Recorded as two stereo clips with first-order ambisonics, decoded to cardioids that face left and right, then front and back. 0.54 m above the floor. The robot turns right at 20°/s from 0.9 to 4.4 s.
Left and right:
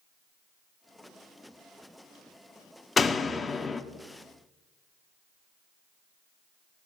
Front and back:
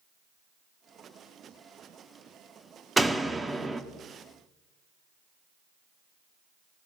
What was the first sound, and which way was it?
A door slam, 110° left.